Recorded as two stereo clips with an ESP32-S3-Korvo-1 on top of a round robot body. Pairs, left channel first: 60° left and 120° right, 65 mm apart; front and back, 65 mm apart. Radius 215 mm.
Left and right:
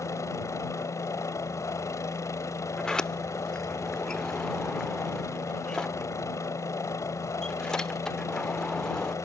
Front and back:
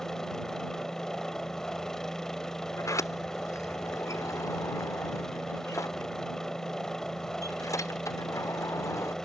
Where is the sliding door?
20° right.